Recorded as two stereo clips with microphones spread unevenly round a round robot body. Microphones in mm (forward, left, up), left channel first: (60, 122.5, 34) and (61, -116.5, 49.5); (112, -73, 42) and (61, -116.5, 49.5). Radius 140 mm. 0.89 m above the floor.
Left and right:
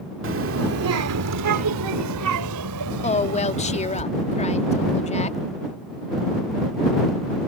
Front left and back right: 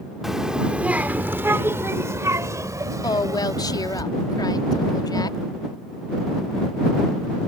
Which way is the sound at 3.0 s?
30° left.